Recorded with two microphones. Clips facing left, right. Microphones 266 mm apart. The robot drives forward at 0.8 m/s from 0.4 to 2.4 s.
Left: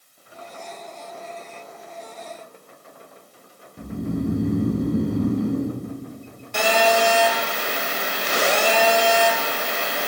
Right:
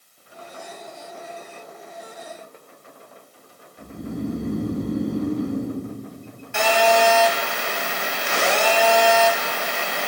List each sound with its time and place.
3.8 s snoring: 60° left (ahead or behind), 2.5 m
6.5 s a phone buzzing: 40° left (ahead or behind), 2 m